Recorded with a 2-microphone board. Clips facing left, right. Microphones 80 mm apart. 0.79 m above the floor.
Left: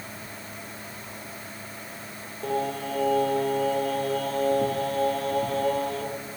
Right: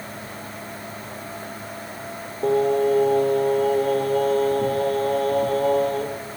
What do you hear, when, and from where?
2.4 s singing: 45° right (ahead or behind), 1.3 m